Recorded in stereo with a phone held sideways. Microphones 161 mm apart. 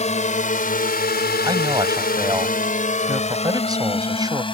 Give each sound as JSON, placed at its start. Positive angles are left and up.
{"t": 0.0, "sound": "a drone", "side_deg": 45}
{"t": 1.4, "sound": "a man speaking", "side_deg": -25}